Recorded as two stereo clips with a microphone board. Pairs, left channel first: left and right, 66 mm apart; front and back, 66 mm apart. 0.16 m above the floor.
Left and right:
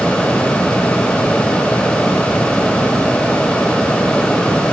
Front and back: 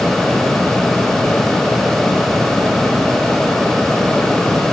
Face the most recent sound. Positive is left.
No sound to turn to.